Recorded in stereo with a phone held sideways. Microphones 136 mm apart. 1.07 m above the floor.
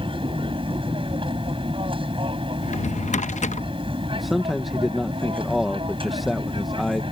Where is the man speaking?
Centre (ahead or behind).